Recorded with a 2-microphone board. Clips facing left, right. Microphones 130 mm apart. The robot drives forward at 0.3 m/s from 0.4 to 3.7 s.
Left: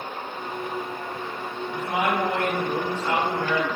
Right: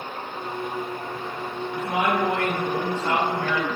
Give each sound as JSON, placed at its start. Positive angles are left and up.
{"t": 1.7, "sound": "a woman speaking", "side_deg": -35, "distance_m": 1.0}